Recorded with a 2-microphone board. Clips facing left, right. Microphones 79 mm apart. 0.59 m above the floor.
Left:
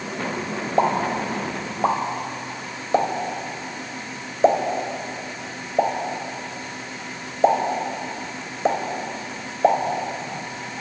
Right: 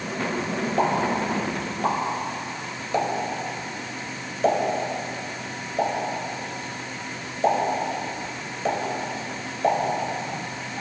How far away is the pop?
About 2 m.